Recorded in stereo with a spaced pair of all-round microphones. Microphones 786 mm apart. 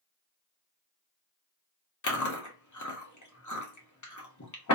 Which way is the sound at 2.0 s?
25° left (ahead or behind).